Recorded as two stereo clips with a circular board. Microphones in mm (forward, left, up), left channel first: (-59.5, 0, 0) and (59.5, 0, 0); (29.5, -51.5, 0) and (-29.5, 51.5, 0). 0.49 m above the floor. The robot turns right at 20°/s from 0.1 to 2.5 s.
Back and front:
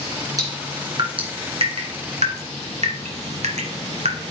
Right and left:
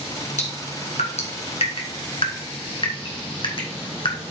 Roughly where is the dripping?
Ahead right.